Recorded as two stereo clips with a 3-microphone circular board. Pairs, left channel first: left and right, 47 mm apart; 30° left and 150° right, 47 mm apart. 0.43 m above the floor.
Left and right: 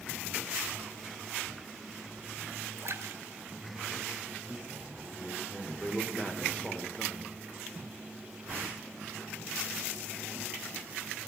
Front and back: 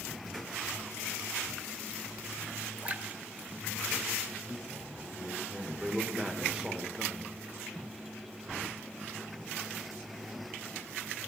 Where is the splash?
90° right, 0.9 m.